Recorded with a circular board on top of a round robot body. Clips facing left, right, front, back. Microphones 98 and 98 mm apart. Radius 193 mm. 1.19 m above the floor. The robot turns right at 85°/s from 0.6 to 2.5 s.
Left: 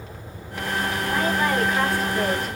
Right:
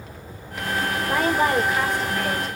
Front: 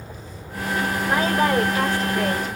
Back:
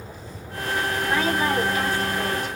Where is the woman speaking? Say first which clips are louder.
Right 3 dB, front 3 dB; 70° right, 1.5 m; by 2.6 s 50° left, 1.5 m.